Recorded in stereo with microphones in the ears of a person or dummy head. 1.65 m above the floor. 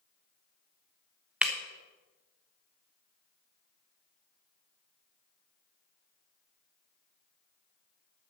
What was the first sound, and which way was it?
Breaking glass, centre (ahead or behind).